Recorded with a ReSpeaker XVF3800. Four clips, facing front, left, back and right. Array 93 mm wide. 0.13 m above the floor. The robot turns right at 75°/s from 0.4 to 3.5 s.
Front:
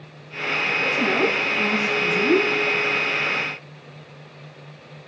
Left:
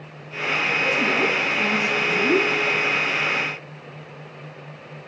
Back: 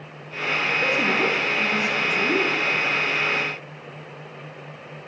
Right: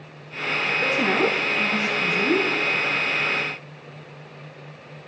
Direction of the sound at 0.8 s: 125° right.